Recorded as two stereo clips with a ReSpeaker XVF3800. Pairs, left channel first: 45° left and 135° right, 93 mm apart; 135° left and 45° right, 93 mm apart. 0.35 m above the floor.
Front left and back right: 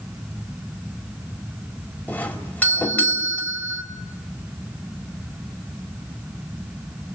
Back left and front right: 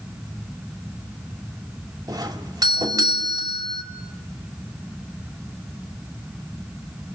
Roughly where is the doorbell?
Ahead right.